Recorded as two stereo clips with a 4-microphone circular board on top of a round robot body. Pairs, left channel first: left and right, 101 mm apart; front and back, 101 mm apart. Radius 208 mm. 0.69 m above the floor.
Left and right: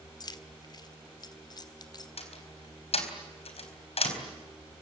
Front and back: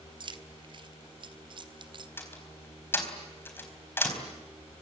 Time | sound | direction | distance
0.2 | keys jangling | 140° left | 1.5 m
2.2 | a door slam | 70° left | 4 m